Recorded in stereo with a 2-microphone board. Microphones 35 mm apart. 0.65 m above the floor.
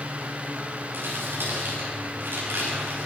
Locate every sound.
0.9 s crumpling: 75° right (ahead or behind), 4 m